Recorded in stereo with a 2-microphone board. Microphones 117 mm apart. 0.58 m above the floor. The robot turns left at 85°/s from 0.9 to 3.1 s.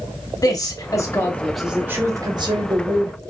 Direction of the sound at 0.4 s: 60° left.